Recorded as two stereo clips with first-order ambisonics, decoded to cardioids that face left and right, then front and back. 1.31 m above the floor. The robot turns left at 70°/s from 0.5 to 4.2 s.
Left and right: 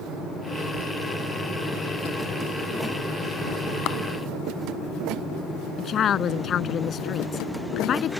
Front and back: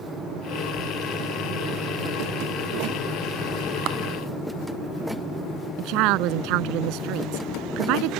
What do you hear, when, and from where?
3.9 s a clap: 135° left; by 4.0 s 125° left
5.8 s a woman speaking: 150° left